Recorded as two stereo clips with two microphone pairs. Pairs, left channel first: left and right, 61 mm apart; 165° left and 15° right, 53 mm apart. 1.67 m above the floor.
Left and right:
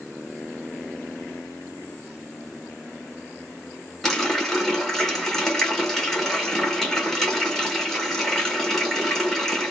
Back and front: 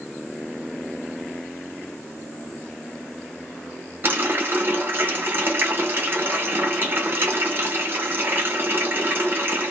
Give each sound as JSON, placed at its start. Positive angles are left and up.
{"t": 4.0, "sound": "a running tap", "azimuth_deg": 5, "distance_m": 1.1}